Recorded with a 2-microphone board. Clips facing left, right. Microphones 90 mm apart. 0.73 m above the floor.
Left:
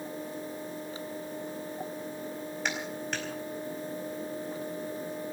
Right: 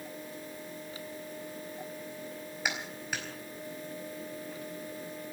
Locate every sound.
2.6 s a clap: 5° right (ahead or behind), 4.5 m